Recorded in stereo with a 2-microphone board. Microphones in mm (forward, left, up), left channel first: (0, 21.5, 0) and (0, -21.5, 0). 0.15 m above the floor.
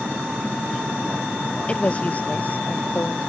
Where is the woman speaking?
30° left (ahead or behind); by 3.2 s 55° left (ahead or behind).